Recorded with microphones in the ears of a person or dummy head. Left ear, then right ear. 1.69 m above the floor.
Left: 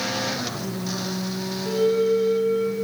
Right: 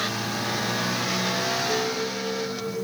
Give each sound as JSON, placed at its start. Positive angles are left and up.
{"t": 1.6, "sound": "a flute", "side_deg": 10, "distance_m": 2.0}